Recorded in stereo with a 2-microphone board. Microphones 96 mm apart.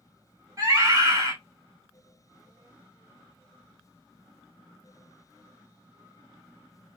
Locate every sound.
0.6 s a scream: 30° right (ahead or behind), 1.7 m